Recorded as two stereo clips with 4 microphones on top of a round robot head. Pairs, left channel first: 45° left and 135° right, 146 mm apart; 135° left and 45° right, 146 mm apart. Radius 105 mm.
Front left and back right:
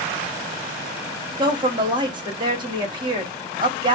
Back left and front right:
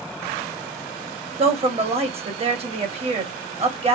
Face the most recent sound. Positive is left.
turn(degrees=-80)